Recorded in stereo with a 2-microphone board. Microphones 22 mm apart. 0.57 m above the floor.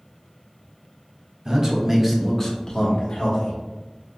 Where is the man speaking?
40° right (ahead or behind), 1.2 m; by 3.6 s 60° left (ahead or behind), 1.4 m.